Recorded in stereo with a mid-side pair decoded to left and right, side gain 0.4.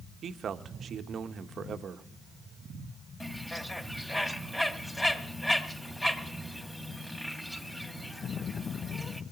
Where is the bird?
15° left, 2 m.